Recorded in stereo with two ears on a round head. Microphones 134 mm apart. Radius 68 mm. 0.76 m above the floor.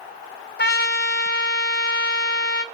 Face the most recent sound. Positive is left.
turn(degrees=65)  # may be behind; listen again after turning